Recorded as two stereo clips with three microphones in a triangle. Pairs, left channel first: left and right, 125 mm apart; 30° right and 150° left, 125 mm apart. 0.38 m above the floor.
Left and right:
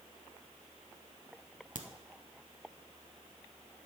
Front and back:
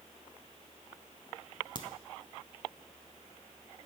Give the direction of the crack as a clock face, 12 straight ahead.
3 o'clock.